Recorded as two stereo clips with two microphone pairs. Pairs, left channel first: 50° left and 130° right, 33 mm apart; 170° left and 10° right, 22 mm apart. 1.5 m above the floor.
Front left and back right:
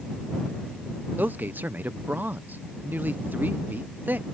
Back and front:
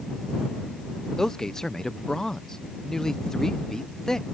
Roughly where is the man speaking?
Behind right.